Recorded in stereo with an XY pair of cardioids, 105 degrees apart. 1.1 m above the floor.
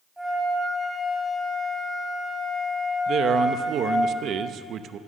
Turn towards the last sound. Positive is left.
turn(degrees=-65)